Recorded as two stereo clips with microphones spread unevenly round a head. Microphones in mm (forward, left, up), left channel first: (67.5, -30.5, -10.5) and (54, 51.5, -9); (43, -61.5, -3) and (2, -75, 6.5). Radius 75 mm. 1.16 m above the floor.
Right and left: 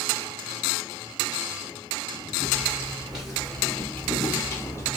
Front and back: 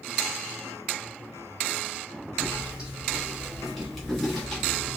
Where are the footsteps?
160° left, 1.3 m; by 5.0 s 65° right, 1.3 m.